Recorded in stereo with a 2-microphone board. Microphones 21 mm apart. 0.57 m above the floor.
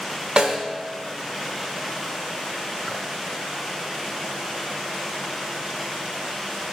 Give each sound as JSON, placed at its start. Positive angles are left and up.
{"t": 0.4, "sound": "a snare drum", "side_deg": -45, "distance_m": 1.2}